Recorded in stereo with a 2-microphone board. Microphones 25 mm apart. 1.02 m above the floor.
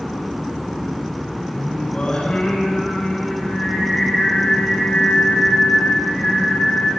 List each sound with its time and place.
1.5 s singing: 45° left (ahead or behind), 10 m